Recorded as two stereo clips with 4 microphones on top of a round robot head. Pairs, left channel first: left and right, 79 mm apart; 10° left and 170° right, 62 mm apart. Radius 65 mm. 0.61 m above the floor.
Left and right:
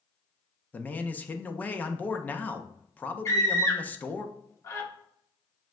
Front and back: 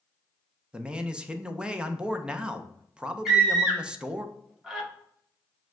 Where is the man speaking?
135° left, 0.6 m.